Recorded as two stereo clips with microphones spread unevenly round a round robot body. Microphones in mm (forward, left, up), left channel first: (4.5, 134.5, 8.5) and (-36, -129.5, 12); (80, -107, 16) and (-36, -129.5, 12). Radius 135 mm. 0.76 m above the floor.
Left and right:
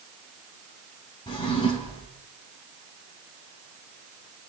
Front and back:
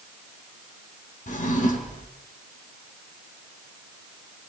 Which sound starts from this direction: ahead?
A drawer, at 1.3 s.